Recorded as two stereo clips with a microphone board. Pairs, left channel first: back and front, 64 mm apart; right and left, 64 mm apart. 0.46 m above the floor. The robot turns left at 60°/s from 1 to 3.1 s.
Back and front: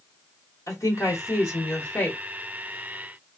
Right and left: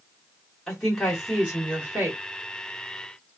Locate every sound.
0.7 s a woman speaking: straight behind, 1.7 m; by 2.2 s 110° left, 1.7 m